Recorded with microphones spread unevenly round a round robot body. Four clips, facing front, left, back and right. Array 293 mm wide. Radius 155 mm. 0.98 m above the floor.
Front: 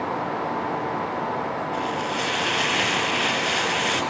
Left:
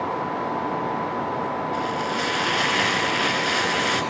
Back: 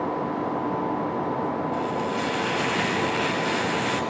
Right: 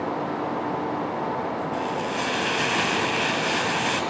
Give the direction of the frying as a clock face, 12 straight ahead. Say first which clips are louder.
Left 1 dB, even; 5 o'clock.